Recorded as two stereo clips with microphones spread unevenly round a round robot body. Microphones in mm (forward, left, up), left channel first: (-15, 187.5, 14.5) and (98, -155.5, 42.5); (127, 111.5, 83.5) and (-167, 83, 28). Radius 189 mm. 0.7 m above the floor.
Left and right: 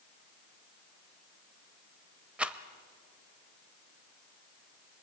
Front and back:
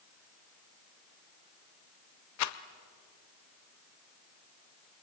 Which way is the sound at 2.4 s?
15° left.